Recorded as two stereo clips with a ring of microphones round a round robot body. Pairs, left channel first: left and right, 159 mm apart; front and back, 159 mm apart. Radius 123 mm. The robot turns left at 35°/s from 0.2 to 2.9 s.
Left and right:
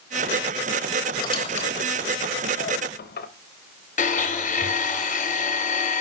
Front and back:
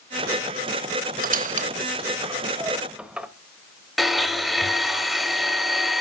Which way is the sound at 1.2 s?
155° left.